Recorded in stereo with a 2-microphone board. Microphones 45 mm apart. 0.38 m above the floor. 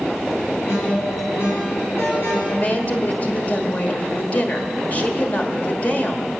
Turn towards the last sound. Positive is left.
turn(degrees=35)  # may be behind; listen again after turning